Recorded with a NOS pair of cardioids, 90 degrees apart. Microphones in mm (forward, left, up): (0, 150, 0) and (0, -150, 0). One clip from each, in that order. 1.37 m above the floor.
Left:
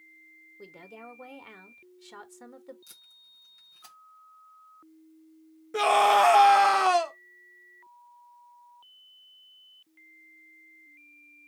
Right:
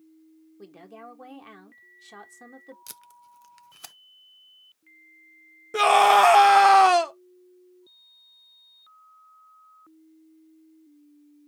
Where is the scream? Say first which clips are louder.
Right 4 dB; 20° right, 0.6 m.